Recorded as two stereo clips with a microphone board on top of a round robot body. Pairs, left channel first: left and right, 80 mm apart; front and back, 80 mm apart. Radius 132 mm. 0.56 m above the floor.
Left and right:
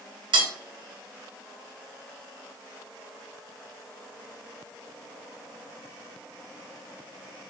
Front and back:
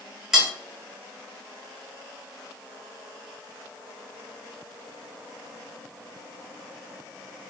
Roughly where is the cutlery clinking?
Right.